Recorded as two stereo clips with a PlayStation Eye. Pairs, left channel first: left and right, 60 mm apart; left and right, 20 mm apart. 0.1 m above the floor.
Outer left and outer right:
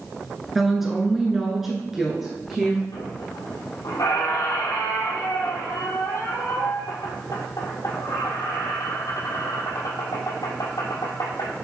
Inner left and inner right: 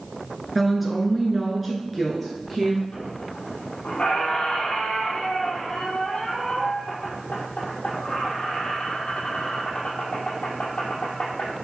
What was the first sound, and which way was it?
A woman speaking, 5° right (ahead or behind).